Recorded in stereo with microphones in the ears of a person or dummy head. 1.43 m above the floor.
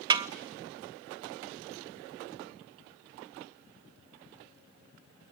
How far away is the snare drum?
About 0.7 m.